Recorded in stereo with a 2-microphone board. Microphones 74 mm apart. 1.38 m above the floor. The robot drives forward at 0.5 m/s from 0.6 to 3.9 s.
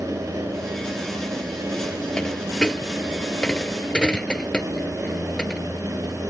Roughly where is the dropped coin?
Centre.